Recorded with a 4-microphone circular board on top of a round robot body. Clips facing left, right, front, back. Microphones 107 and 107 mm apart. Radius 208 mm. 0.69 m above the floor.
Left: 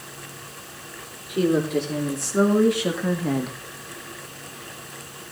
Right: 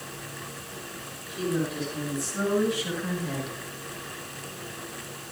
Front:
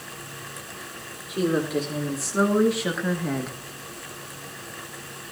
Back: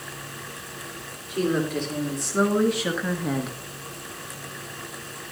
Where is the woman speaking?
80° left, 3.5 m; by 3.6 s 105° left, 1.6 m.